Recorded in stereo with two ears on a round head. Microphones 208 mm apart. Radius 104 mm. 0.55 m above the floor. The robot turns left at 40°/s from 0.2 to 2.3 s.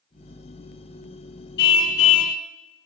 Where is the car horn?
50° left (ahead or behind), 2 m; by 2.4 s 80° left, 2 m.